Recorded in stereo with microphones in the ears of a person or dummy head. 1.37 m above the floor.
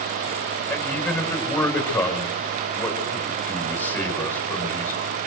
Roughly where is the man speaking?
Centre.